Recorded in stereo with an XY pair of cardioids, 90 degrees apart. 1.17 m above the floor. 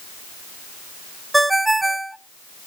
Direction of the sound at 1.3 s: 10° right.